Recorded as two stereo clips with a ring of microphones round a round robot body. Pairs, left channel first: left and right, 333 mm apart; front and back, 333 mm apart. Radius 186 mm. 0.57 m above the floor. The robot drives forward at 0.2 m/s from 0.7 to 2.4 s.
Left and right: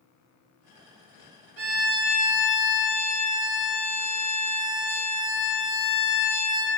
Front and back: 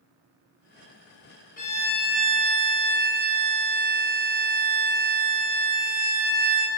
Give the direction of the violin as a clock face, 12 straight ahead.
2 o'clock.